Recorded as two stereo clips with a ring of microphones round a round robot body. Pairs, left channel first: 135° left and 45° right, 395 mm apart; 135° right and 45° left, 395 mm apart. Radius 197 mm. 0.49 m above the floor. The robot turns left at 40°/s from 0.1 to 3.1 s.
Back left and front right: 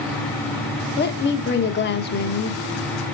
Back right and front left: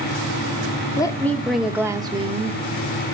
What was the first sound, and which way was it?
A woman speaking, 155° left.